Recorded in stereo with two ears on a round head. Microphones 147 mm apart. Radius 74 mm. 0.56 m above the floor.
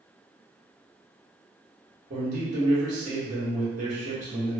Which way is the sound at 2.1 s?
45° right (ahead or behind).